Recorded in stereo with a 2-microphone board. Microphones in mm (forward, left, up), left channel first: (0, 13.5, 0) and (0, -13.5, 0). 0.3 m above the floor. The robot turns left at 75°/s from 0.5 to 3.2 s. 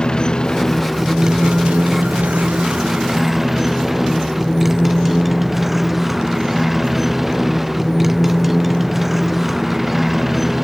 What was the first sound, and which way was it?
A motorcycle, 35° left.